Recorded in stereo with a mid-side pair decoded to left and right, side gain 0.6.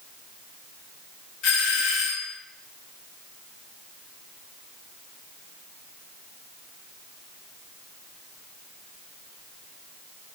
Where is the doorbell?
60° left, 2 m.